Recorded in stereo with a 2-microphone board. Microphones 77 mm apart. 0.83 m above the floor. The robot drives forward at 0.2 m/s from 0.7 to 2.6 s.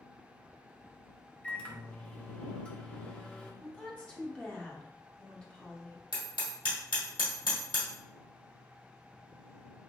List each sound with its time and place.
1.4 s a microwave: 15° left (ahead or behind), 0.5 m
3.6 s a woman speaking: 15° left (ahead or behind), 0.8 m
6.1 s hammering: 80° left, 1.5 m